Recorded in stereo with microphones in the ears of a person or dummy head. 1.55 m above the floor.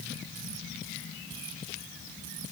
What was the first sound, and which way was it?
Only background noise.